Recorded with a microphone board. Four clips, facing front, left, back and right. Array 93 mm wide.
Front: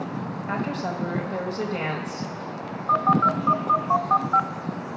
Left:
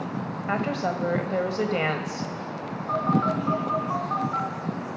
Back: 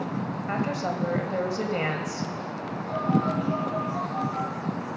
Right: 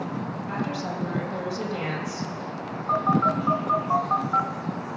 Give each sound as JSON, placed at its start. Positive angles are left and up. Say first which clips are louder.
{"t": 0.5, "sound": "a woman speaking", "louder": "left 5 dB, even", "azimuth_deg": 100, "distance_m": 1.4}
{"t": 2.9, "sound": "a phone buzzing", "louder": "right 2 dB, front 6 dB", "azimuth_deg": -25, "distance_m": 0.7}